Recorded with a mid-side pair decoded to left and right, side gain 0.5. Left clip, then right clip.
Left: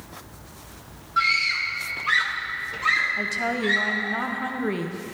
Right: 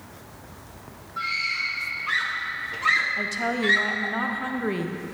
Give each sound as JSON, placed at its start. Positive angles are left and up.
{"t": 1.2, "sound": "a scream", "azimuth_deg": 65, "distance_m": 1.5}
{"t": 3.2, "sound": "a woman speaking", "azimuth_deg": -5, "distance_m": 0.8}